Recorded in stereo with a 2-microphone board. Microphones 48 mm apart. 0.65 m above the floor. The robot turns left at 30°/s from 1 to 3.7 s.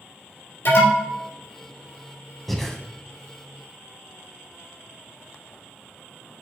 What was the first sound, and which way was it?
An alarm, 60° left (ahead or behind).